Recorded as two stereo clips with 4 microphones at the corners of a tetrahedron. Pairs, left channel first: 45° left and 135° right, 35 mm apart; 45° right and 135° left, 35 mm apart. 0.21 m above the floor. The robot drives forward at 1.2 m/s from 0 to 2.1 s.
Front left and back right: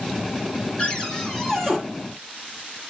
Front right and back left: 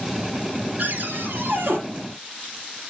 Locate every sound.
0.8 s a cupboard door: 105° left, 2.5 m; by 1.8 s 130° left, 3 m